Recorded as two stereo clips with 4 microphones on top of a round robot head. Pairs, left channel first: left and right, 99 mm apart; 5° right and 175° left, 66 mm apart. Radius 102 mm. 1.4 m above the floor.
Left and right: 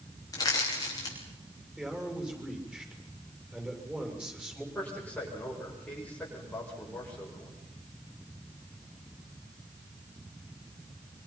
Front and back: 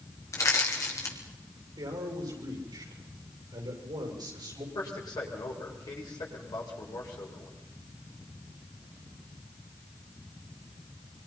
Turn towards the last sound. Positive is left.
turn(degrees=15)